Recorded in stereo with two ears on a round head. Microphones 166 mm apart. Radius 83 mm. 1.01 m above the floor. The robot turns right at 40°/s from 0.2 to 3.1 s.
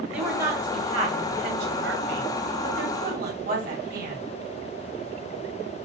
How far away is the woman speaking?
About 1.7 m.